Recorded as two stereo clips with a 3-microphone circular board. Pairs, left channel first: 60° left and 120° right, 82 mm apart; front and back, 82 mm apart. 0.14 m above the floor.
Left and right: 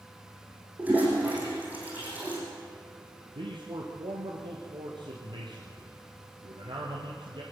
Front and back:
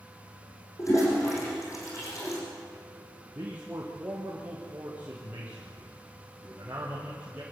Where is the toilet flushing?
50° right, 7 m.